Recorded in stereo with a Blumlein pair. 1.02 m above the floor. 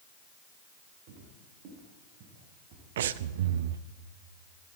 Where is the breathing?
60° right, 0.5 m.